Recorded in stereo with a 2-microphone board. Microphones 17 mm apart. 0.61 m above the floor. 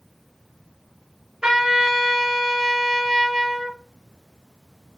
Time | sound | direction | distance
1.4 | a trumpet | 50° right (ahead or behind) | 1.0 m